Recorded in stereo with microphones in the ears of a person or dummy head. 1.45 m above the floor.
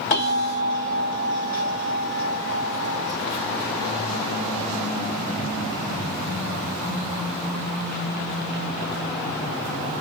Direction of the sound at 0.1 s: 45° left (ahead or behind).